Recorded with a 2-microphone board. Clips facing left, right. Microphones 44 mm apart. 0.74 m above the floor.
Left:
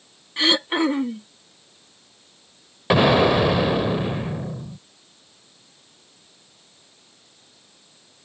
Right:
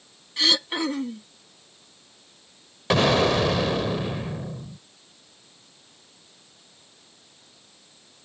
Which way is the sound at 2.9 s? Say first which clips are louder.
Left 4 dB; 15° left (ahead or behind).